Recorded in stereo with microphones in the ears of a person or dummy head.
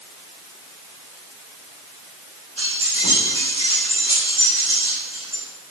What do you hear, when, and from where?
2.6 s keys jangling: 45° right (ahead or behind), 3 m; by 5.4 s 25° right (ahead or behind), 6 m